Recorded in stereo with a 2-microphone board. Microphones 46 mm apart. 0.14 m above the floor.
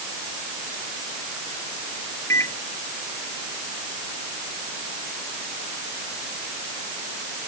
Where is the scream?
No scream in this recording.